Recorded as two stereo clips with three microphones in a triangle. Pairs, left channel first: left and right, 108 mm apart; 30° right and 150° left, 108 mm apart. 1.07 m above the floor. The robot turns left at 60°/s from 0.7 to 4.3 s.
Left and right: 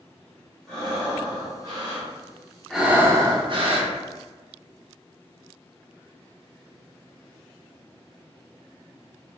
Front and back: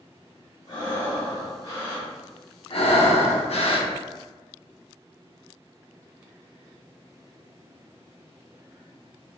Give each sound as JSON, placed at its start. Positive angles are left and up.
{"t": 0.7, "sound": "breathing", "azimuth_deg": 10, "distance_m": 1.9}
{"t": 2.7, "sound": "breathing", "azimuth_deg": 0, "distance_m": 0.7}